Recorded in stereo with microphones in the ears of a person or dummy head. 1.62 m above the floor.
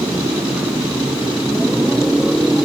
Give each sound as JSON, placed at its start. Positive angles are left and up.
{"t": 0.0, "sound": "a motorcycle", "side_deg": -10}